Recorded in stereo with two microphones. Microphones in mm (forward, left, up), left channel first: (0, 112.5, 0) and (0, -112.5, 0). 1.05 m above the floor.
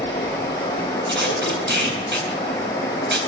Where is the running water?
15° left (ahead or behind), 9 m.